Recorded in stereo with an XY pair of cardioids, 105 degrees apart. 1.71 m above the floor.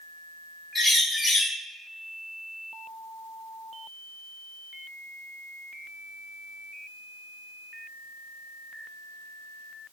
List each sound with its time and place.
0.8 s a bird: 15° left, 2.0 m